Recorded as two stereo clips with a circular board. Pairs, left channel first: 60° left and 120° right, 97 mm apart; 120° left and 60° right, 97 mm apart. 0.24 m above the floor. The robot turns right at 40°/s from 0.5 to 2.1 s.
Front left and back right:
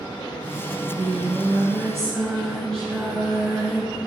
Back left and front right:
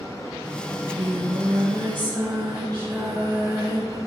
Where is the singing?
80° right, 2.5 m; by 4.0 s 20° right, 2.5 m.